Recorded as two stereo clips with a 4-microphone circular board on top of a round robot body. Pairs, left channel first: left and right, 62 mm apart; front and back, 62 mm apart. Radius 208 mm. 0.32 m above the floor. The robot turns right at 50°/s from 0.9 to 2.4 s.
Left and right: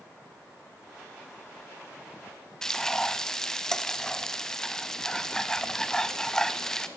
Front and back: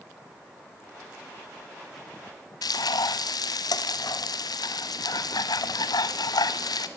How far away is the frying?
About 0.6 m.